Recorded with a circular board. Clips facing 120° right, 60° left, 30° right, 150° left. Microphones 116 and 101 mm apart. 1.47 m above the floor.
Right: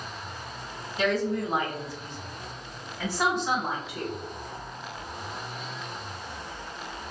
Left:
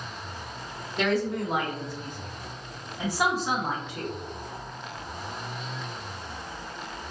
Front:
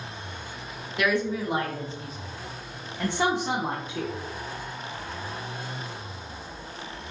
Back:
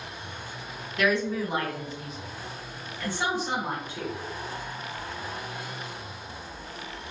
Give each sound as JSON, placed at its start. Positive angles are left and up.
{"t": 1.0, "sound": "a woman speaking", "azimuth_deg": 50, "distance_m": 1.1}